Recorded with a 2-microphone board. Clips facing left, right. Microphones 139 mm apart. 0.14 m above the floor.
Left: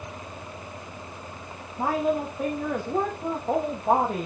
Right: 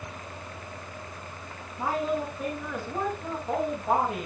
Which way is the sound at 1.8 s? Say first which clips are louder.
Left 3 dB; 45° left (ahead or behind).